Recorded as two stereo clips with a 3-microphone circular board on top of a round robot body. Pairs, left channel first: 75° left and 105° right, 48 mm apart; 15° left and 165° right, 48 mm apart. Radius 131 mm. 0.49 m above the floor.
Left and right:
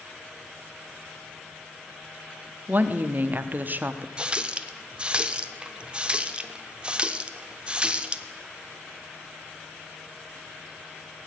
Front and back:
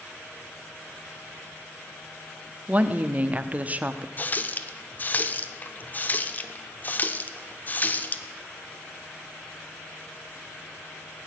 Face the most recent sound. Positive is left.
turn(degrees=-35)